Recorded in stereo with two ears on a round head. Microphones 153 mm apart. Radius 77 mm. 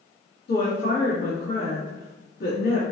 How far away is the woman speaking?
About 1.5 m.